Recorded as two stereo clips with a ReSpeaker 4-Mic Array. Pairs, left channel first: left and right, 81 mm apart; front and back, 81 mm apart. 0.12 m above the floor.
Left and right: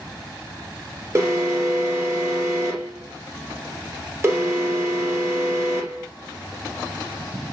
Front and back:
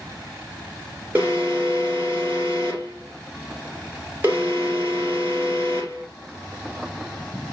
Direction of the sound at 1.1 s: 125° right.